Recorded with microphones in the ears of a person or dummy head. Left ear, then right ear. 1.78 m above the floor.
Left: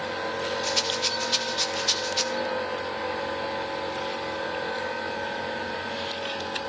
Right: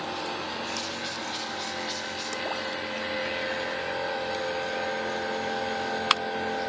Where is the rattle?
55° left (ahead or behind), 2 m.